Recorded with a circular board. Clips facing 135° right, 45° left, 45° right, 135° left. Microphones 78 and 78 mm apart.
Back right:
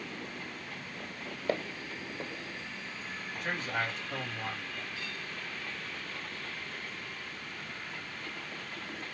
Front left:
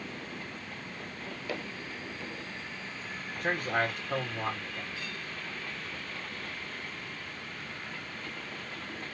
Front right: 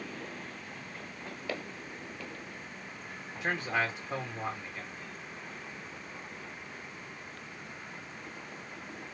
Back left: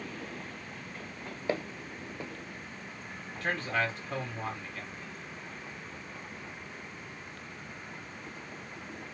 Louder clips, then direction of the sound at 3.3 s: Front left 5 dB, even; 25° left.